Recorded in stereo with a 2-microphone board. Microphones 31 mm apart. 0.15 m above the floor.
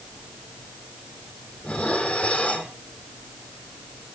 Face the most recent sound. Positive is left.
turn(degrees=35)  # may be behind; listen again after turning